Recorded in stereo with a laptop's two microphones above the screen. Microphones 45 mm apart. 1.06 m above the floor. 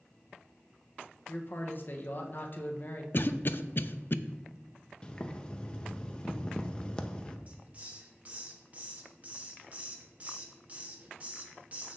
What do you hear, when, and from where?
1.3 s a man speaking: 45° left (ahead or behind), 0.8 m
3.1 s a cough: 50° left (ahead or behind), 0.7 m
5.0 s boiling: 20° left (ahead or behind), 0.7 m
7.5 s a hiss: 35° right (ahead or behind), 1.0 m